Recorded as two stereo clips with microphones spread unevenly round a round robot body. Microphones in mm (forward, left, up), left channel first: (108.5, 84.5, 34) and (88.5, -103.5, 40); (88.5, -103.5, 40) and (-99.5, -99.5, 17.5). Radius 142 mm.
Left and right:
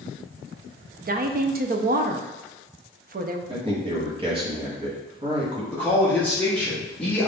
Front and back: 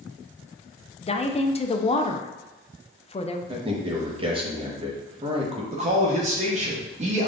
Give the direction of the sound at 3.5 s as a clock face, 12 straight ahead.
5 o'clock.